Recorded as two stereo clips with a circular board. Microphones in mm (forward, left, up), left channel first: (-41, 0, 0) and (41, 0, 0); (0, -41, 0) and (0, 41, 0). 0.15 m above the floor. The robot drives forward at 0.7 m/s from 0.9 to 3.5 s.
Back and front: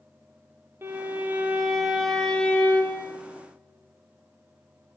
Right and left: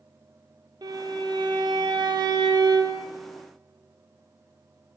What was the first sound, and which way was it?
A violin, 60° left.